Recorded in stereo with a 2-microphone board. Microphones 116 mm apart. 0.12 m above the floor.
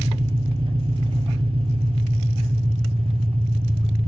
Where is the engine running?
50° right (ahead or behind), 0.8 m.